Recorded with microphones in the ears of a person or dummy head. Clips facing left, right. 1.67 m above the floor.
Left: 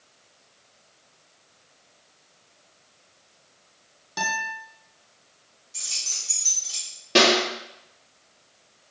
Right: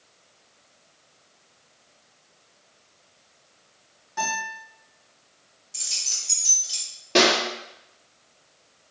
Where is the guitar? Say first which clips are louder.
Right 1 dB; 50° left (ahead or behind), 1.3 m.